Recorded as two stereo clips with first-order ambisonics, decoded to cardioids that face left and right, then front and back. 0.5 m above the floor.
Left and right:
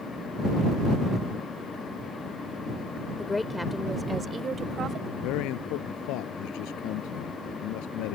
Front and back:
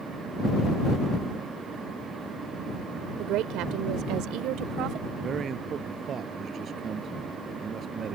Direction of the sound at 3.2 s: 160° left.